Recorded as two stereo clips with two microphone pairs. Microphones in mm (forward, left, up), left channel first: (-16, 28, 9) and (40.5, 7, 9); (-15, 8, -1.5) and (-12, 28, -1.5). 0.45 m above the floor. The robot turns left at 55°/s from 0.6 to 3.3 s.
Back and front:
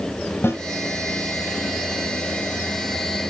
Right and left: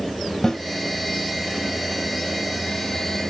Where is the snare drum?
165° right, 2.5 m.